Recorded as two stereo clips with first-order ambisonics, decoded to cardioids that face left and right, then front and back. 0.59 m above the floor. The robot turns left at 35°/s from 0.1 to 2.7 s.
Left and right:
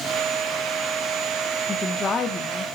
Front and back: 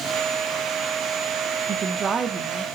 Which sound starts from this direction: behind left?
A woman speaking, at 1.7 s.